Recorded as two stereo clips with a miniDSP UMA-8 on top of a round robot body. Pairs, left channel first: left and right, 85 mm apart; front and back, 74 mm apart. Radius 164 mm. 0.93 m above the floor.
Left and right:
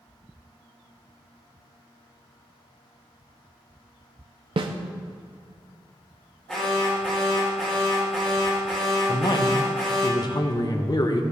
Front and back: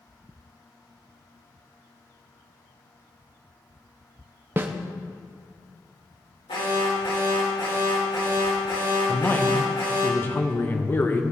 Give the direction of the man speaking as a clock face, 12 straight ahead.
10 o'clock.